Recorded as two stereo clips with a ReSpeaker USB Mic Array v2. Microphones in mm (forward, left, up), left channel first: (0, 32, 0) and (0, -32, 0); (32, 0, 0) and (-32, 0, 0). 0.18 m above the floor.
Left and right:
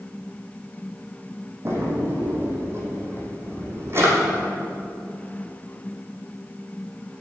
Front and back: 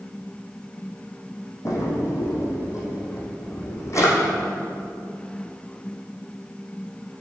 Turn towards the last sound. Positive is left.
turn(degrees=-40)